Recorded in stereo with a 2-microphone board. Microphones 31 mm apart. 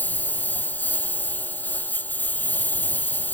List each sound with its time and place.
0.0 s a lawn mower: 75° left (ahead or behind)